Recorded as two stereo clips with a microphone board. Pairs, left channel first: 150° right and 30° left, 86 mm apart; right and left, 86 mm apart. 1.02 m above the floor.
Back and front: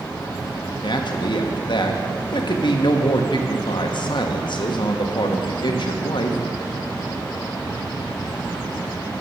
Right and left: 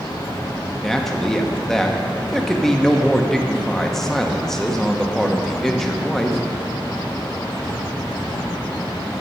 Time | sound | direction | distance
0.8 | a man speaking | 175° right | 1.0 m